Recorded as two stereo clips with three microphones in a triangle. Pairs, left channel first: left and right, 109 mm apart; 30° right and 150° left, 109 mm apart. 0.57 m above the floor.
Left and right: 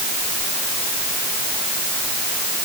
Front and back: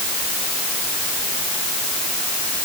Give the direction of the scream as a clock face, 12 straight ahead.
I don't hear a scream.